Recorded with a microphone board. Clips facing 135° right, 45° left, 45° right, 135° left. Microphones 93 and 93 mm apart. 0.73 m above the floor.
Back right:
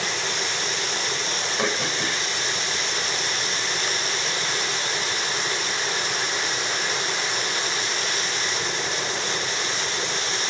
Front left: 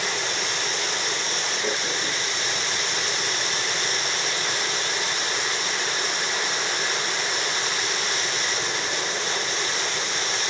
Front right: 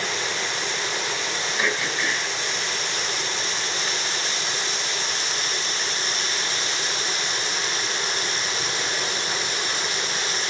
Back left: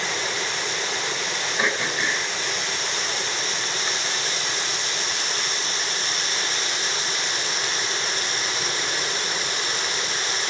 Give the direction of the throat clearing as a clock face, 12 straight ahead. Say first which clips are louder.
Back right 4 dB, back left 1 dB; 5 o'clock.